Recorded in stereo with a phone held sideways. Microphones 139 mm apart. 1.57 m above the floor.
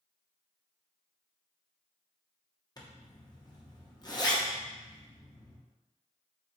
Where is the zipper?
30° left (ahead or behind), 0.7 m.